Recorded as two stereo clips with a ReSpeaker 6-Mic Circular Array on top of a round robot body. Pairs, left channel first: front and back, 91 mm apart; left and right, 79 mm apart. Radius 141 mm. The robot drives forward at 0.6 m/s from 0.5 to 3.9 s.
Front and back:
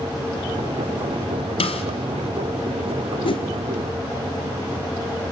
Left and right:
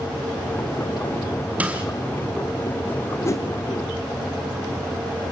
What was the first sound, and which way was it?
A snare drum, 15° right.